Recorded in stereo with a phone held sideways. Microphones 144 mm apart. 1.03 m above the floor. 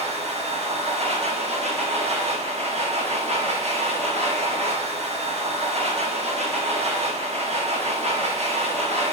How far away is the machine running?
About 0.7 m.